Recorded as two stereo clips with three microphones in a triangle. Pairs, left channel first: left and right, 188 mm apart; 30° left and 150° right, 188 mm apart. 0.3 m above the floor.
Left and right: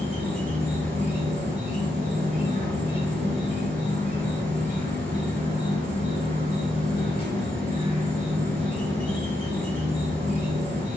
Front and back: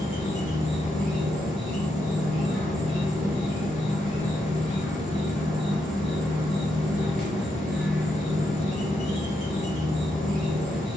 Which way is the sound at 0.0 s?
60° right.